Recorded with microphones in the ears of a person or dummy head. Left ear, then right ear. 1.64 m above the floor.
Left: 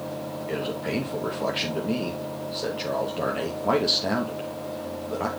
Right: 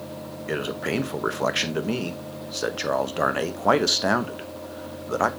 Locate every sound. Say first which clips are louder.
0.5 s a man speaking: right 3 dB; 50° right (ahead or behind), 1.0 m